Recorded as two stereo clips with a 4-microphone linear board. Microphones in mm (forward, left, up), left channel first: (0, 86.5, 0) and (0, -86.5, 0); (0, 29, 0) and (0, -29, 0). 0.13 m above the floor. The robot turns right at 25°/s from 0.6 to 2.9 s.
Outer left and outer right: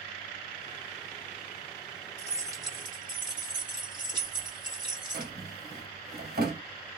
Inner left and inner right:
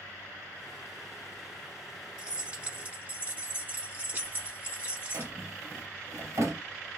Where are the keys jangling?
15° right (ahead or behind), 1.4 m; by 5.3 s 25° right (ahead or behind), 1.4 m.